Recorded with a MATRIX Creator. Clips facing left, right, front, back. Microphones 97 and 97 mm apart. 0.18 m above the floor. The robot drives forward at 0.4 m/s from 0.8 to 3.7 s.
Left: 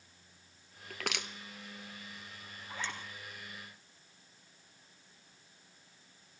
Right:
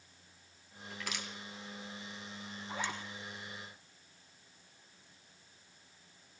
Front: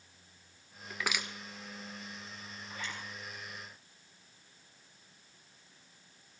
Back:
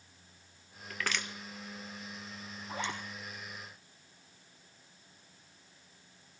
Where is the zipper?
165° right, 3 m.